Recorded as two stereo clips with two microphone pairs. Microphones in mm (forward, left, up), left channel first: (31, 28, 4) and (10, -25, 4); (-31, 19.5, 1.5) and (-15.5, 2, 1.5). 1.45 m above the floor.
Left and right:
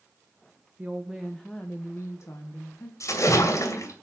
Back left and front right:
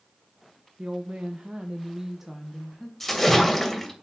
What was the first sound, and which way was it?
A woman speaking, 45° right.